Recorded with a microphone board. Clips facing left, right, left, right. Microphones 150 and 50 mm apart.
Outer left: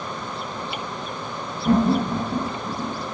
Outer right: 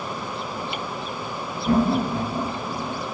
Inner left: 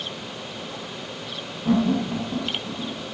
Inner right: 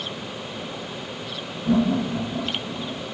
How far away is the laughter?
About 4.5 m.